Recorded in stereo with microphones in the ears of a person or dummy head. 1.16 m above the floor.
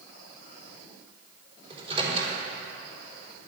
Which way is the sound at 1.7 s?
35° right (ahead or behind).